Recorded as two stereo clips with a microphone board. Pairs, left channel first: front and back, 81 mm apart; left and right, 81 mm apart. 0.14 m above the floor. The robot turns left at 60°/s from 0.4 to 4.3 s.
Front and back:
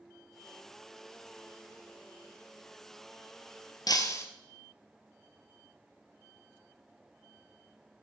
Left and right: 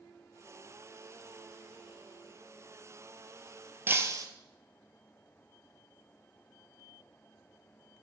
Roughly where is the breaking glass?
Ahead right.